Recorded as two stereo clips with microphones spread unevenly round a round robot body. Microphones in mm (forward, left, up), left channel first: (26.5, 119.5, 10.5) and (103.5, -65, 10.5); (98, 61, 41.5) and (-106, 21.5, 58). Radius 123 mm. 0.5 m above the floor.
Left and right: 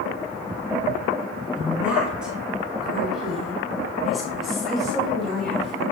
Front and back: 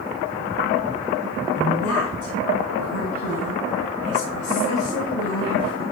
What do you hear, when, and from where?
1.6 s a woman speaking: 15° left, 4 m; by 5.8 s 25° left, 6.5 m